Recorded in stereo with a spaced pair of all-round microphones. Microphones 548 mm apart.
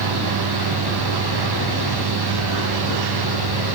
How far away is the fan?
About 0.8 m.